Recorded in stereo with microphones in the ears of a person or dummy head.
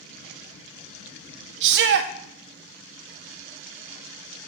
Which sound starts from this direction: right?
A shout, at 1.6 s.